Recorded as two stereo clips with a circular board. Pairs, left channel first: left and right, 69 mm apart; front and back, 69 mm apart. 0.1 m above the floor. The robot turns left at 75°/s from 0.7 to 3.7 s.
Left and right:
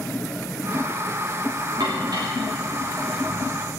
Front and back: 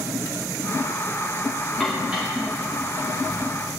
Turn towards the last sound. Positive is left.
turn(degrees=135)